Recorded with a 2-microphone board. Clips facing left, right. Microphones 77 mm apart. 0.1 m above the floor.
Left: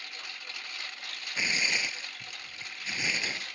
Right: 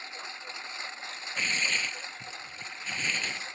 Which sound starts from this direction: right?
A lawn mower, at 0.0 s.